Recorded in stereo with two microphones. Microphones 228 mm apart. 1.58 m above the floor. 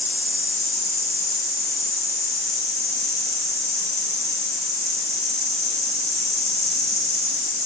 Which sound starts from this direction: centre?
An insect, at 0.0 s.